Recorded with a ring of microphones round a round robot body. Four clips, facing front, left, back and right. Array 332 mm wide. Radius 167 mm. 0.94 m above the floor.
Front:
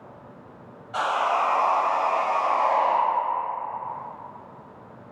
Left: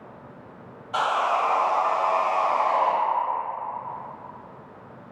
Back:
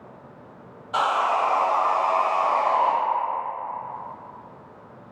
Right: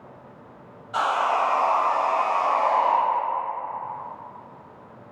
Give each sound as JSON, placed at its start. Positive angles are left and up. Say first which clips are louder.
{"t": 0.9, "sound": "sawing", "louder": "right 1 dB, back 2 dB", "azimuth_deg": 155, "distance_m": 0.7}